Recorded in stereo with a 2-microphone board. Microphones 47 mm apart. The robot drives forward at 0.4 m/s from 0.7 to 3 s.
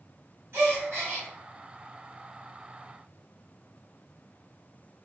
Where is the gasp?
55° right (ahead or behind), 1.8 m.